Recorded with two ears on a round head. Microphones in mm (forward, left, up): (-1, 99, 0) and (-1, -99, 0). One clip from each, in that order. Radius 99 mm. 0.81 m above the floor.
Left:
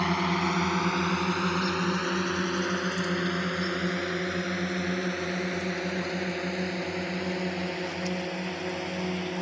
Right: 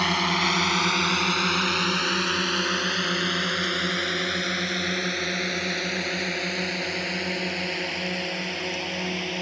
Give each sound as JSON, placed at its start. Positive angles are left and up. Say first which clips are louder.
{"t": 0.0, "sound": "a drone", "louder": "right 5 dB", "side_deg": -75}